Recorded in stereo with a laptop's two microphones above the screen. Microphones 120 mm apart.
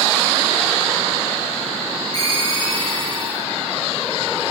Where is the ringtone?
35° left (ahead or behind), 2.5 m.